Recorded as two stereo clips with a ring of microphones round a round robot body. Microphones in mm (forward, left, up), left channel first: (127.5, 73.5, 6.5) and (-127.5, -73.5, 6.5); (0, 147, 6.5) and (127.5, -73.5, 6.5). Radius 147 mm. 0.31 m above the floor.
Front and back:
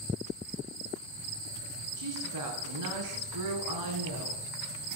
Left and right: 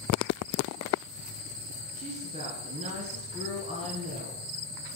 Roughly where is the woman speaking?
Behind right.